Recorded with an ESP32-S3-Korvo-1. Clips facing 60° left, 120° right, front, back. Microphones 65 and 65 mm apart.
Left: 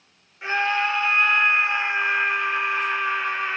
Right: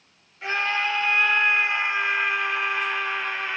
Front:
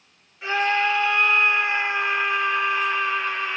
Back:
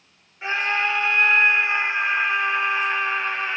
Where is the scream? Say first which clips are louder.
Left 2 dB, front 2 dB; 120° left, 1.8 m.